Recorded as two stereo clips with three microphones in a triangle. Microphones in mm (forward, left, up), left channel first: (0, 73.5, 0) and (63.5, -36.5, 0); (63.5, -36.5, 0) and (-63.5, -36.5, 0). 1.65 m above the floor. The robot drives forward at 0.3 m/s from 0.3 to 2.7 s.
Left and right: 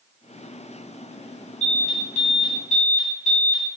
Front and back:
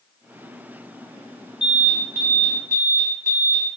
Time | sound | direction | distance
1.6 | an alarm | 100° left | 1.2 m